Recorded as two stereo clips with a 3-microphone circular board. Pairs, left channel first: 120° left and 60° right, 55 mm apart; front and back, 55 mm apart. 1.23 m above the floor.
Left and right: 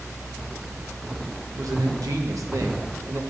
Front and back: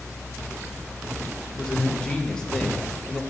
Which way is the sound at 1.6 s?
75° right.